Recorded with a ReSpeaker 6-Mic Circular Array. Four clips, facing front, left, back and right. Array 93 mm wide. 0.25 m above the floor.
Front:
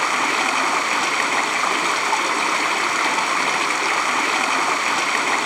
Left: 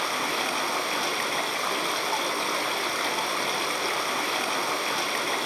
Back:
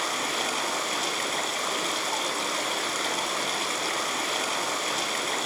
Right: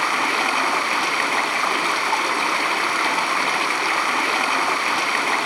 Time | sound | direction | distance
0.0 | running water | 35° right | 2 m